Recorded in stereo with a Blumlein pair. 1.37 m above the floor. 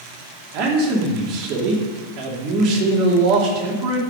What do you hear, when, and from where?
0.5 s a man speaking: 45° right, 2.5 m